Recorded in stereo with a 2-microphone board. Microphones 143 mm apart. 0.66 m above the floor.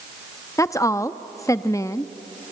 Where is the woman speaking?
20° left (ahead or behind), 0.5 m.